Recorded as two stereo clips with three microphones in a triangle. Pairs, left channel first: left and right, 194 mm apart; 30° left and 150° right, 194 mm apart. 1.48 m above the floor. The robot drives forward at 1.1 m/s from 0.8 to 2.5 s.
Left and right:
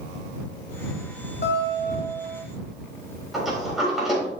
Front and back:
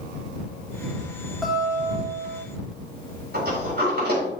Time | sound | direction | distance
1.4 | a guitar | 120° left | 2.5 m
3.3 | a sliding door | straight behind | 4 m